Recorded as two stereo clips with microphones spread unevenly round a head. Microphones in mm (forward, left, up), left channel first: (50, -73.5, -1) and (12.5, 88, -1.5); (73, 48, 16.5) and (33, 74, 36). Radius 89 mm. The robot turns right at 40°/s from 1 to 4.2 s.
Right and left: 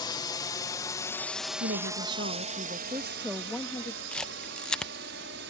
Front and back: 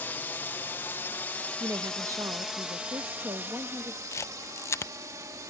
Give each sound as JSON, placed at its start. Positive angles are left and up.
{"t": 0.0, "sound": "a drone", "azimuth_deg": -15}
{"t": 1.6, "sound": "a woman speaking", "azimuth_deg": 120}
{"t": 4.1, "sound": "a camera shutter", "azimuth_deg": 5}